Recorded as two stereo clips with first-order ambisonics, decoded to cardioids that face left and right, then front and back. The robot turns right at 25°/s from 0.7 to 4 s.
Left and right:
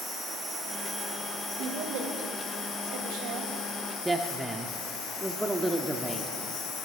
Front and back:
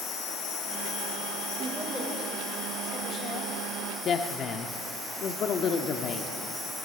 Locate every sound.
0.0 s an insect: 5° right, 2.5 m; by 6.8 s 80° left, 2.5 m
1.6 s a woman speaking: 100° right, 2.5 m; by 3.5 s 50° right, 2.5 m
4.0 s a woman speaking: 5° right, 0.7 m